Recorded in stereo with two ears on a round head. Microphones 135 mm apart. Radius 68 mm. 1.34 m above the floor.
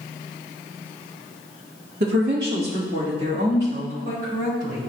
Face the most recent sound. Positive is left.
turn(degrees=-80)